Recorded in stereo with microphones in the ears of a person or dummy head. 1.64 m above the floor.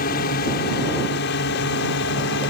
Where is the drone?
45° left (ahead or behind); by 2.5 s 55° left (ahead or behind).